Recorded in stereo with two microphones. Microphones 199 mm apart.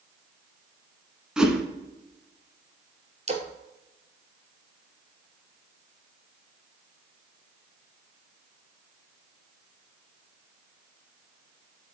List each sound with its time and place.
1.4 s a whoosh: 5° right (ahead or behind), 1.3 m
3.3 s a splash: 35° right (ahead or behind), 1.2 m